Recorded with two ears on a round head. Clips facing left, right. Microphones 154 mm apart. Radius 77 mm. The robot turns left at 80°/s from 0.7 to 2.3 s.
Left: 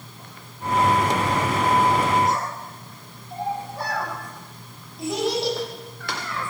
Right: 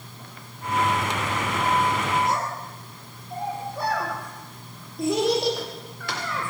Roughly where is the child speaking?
Right.